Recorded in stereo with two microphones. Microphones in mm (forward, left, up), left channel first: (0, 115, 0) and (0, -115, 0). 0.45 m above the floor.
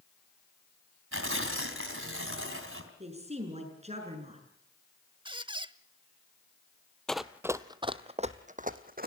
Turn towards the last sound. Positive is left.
turn(degrees=-45)  # may be behind; listen again after turning